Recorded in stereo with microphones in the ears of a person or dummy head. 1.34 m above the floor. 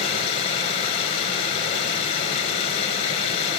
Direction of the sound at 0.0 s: 35° left (ahead or behind).